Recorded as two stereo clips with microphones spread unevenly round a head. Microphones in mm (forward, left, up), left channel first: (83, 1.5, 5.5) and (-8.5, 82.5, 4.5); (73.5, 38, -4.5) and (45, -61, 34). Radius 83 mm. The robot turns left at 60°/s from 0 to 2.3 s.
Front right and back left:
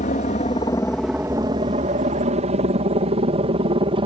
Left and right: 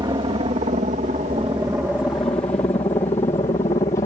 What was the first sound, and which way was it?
A helicopter, 60° right.